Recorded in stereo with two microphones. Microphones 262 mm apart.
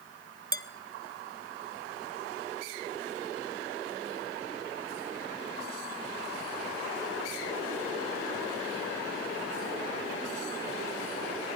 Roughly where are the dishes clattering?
Right.